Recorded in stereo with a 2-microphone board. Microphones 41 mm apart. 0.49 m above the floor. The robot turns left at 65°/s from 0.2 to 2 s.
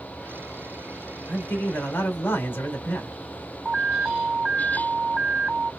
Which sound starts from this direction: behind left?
A man speaking, at 1.3 s.